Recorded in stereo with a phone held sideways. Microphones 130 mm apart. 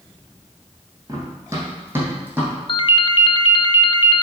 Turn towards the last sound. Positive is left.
turn(degrees=40)  # may be behind; listen again after turning